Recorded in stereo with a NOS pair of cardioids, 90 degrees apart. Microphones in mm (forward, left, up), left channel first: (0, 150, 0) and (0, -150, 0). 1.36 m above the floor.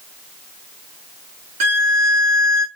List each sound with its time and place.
1.6 s a violin: 60° right, 1.1 m